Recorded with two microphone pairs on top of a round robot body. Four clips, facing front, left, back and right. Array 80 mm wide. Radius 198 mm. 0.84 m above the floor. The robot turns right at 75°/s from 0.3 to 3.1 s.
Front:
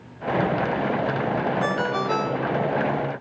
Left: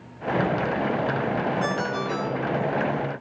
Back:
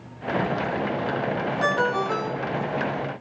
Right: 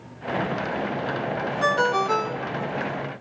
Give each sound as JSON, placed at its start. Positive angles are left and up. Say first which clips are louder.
{"t": 1.6, "sound": "a ringtone", "louder": "right 5 dB, back 1 dB", "azimuth_deg": -110, "distance_m": 0.8}